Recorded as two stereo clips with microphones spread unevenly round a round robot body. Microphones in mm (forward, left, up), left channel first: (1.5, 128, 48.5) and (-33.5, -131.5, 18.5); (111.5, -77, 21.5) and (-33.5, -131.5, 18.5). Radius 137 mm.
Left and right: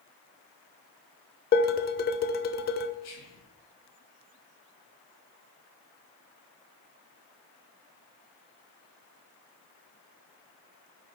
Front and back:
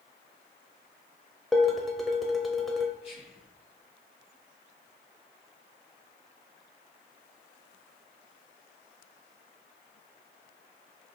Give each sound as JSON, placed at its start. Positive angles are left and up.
{"t": 1.5, "sound": "dishes clattering", "azimuth_deg": 110, "distance_m": 0.6}
{"t": 3.0, "sound": "whispering", "azimuth_deg": 70, "distance_m": 2.0}